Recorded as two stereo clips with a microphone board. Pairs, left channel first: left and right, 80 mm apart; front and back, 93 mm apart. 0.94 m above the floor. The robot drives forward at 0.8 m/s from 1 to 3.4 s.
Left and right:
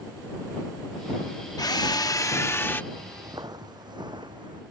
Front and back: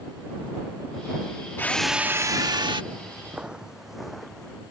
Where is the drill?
65° left; by 2.8 s 150° left.